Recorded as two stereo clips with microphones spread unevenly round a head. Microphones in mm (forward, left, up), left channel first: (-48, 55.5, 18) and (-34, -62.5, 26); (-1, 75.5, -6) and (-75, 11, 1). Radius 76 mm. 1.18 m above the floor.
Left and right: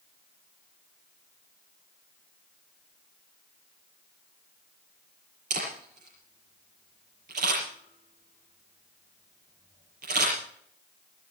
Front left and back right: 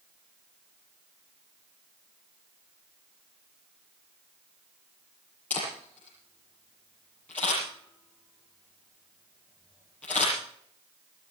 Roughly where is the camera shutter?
Ahead right.